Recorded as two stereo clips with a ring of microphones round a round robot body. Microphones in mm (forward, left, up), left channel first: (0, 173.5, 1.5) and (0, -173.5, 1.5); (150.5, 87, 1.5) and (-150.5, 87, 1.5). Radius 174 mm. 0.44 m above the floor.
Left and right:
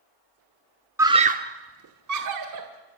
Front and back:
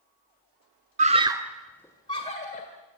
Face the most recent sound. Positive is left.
turn(degrees=-65)